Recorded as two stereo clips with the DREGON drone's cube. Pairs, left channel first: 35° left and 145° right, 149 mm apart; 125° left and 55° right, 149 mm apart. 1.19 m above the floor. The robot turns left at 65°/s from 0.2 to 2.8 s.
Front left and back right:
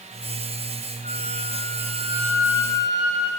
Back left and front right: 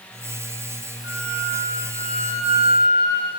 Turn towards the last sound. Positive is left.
turn(degrees=115)